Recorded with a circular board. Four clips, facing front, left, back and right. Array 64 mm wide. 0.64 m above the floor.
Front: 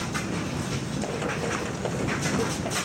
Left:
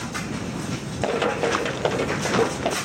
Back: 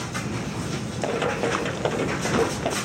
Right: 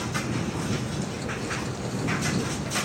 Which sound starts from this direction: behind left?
Running footsteps, at 1.0 s.